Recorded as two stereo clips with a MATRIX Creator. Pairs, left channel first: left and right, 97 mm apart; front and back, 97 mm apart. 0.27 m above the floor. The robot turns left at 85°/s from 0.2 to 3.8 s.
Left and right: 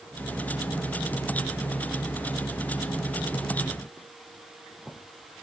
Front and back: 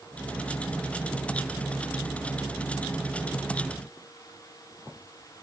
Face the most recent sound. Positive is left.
No sound to turn to.